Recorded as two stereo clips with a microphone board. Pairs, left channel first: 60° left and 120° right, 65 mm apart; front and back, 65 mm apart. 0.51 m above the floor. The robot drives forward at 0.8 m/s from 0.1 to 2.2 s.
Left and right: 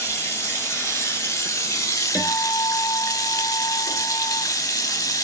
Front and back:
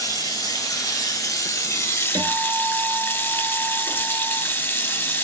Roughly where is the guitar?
Behind.